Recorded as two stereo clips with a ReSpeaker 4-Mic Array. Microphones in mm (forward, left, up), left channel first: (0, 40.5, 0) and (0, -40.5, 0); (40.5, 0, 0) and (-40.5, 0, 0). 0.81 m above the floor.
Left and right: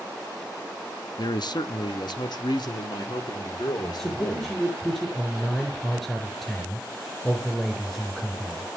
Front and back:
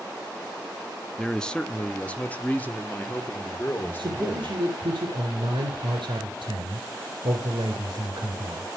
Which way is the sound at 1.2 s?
80° left.